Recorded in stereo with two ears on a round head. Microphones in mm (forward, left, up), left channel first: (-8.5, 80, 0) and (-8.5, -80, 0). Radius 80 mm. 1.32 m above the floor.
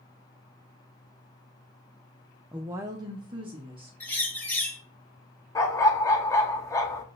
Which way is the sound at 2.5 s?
5° right (ahead or behind).